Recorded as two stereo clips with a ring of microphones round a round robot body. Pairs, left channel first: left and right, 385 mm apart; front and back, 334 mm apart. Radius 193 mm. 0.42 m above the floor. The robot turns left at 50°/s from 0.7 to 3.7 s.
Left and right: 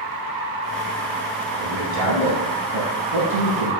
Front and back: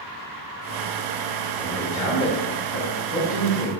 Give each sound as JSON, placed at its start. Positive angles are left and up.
{"t": 1.6, "sound": "a man speaking", "azimuth_deg": 75, "distance_m": 1.1}